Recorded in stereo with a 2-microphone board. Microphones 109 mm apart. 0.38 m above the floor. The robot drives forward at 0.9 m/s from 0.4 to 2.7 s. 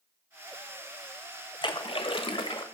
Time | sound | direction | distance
1.6 | a splash | 50° left (ahead or behind) | 1.1 m